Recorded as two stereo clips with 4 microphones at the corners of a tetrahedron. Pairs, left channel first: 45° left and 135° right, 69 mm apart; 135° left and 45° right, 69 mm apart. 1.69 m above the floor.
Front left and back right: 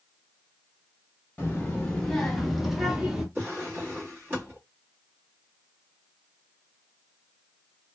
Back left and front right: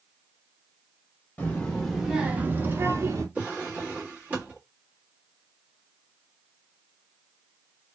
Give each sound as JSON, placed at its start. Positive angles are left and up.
{"t": 1.4, "sound": "a child speaking", "azimuth_deg": 85, "distance_m": 0.8}
{"t": 3.4, "sound": "a drawer", "azimuth_deg": -100, "distance_m": 1.3}